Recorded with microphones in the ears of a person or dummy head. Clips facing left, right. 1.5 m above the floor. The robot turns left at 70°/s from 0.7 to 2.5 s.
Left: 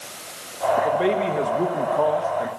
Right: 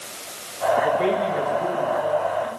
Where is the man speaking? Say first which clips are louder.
Left 1 dB; 175° right, 1.9 m; by 2.5 s 65° left, 1.9 m.